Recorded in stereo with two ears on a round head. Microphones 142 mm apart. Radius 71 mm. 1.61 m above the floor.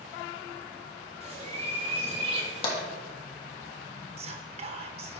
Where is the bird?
40° right (ahead or behind), 2.0 m.